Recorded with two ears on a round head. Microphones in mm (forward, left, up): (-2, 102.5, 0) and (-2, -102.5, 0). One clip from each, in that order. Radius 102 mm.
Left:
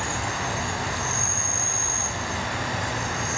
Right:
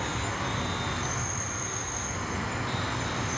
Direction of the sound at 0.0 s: 30° left (ahead or behind).